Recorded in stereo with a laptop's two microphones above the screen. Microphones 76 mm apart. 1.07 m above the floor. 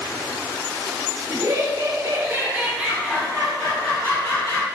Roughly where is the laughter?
Right.